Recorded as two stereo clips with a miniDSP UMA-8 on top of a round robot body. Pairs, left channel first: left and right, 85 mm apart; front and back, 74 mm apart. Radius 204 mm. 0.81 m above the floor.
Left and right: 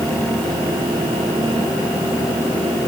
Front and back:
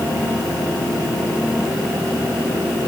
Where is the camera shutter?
No camera shutter in this recording.